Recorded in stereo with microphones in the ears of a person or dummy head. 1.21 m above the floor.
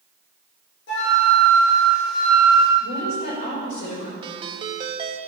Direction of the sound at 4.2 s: 25° right (ahead or behind).